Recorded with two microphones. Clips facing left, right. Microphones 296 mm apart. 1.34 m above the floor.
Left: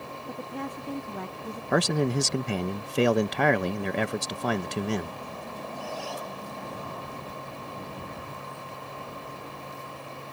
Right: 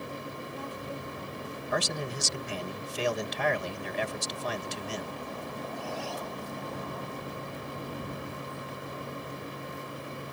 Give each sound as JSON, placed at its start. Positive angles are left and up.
{"t": 0.3, "sound": "a woman speaking", "side_deg": 85}
{"t": 1.7, "sound": "a man speaking", "side_deg": 65}